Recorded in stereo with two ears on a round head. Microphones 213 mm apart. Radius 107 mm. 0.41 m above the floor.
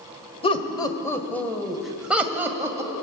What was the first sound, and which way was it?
Laughter, 25° left (ahead or behind).